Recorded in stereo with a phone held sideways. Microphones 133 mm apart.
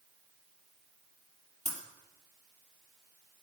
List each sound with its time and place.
1.6 s breaking glass: 55° right (ahead or behind), 3 m